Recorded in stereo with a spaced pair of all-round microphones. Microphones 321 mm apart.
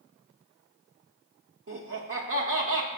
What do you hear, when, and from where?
1.7 s laughter: 45° right (ahead or behind), 0.6 m